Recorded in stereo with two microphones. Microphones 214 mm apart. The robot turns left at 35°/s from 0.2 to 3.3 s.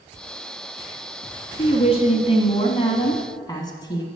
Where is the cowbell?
I don't hear a cowbell.